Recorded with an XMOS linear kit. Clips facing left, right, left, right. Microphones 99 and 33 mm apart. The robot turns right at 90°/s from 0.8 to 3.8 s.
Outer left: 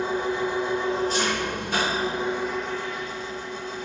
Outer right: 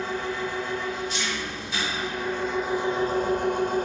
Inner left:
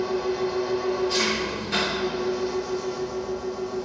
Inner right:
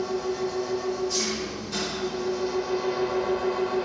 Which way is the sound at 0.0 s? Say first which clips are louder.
Outer left 4 dB, inner left 2 dB; 20° left.